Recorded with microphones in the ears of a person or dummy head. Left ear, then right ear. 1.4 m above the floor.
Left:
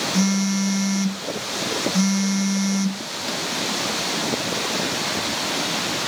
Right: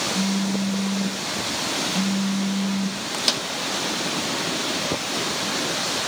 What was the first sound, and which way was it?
A phone buzzing, 60° left (ahead or behind).